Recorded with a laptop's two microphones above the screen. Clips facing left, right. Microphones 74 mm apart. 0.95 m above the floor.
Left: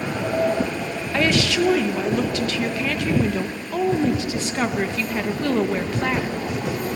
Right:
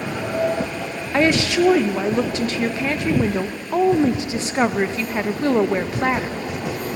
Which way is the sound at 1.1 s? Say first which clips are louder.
Right 3 dB; 25° right (ahead or behind).